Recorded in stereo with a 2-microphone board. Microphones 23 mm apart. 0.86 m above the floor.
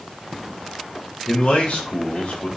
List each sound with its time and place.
1.3 s a man speaking: 75° left (ahead or behind), 4.5 m